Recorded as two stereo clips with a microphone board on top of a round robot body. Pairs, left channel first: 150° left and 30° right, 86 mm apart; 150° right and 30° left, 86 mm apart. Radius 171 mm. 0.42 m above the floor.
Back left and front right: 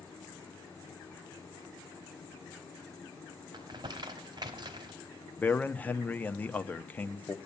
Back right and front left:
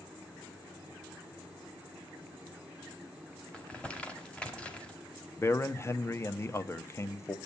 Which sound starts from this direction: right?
Crumpling, at 3.5 s.